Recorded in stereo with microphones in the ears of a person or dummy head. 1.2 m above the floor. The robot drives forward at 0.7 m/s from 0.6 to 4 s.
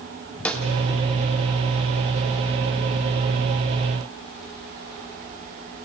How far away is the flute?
I don't hear a flute.